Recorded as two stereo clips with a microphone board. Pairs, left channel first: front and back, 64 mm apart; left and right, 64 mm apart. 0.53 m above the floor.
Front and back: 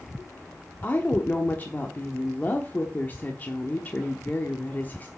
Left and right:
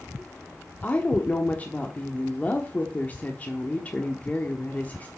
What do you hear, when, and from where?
0.8 s a woman speaking: 45° left, 1.0 m